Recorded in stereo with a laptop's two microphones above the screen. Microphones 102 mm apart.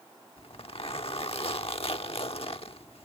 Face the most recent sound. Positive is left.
turn(degrees=70)  # may be behind; listen again after turning